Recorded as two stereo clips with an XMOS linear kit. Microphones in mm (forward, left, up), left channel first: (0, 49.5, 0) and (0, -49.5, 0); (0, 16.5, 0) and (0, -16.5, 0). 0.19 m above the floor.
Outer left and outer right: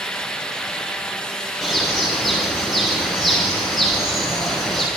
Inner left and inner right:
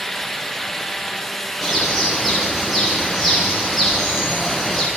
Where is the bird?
Centre (ahead or behind), 10 m.